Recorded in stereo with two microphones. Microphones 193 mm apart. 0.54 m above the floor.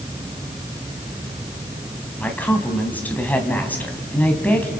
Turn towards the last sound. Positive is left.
turn(degrees=10)  # may be behind; listen again after turning